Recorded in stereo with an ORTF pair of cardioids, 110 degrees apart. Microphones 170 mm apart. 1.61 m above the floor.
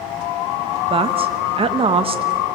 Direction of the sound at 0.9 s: 35° right.